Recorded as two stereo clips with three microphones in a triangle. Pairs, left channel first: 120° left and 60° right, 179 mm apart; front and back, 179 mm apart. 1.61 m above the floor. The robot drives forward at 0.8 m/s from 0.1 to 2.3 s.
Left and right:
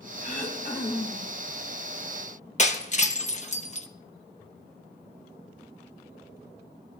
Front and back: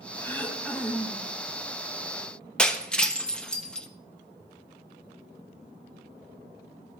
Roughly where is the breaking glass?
Left.